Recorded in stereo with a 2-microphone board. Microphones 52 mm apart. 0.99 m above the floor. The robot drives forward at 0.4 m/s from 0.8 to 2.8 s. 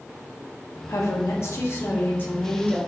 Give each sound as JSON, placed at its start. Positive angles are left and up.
{"t": 0.9, "sound": "a woman speaking", "side_deg": 70, "distance_m": 0.6}